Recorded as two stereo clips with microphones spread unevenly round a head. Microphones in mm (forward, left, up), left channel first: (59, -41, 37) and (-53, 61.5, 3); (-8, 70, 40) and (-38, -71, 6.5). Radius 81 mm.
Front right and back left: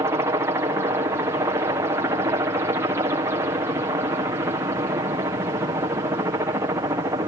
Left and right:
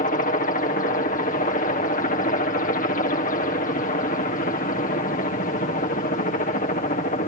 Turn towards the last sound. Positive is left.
turn(degrees=85)